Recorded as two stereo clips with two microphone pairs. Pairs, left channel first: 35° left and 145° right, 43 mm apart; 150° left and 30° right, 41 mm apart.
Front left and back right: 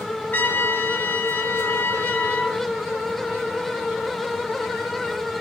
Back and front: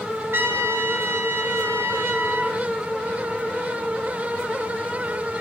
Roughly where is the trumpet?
Ahead.